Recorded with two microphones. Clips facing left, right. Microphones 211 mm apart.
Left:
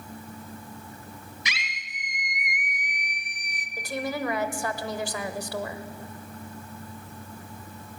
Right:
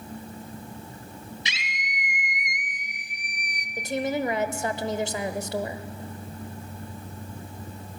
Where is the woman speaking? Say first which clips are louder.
Right 4 dB; 25° right (ahead or behind), 0.9 m.